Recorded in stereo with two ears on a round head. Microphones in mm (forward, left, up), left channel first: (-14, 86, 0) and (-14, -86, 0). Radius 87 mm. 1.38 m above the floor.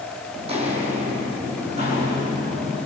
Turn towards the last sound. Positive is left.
turn(degrees=-35)  # may be behind; listen again after turning